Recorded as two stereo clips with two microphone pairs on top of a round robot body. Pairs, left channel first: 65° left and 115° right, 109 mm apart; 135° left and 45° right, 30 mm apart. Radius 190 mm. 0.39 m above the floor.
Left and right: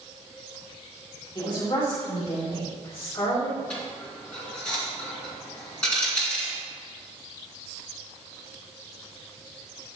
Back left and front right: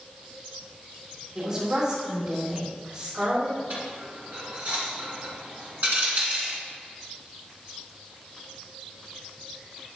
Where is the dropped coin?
15° right, 3 m.